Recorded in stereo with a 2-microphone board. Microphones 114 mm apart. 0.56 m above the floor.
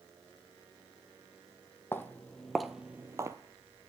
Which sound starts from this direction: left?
Footsteps, at 1.9 s.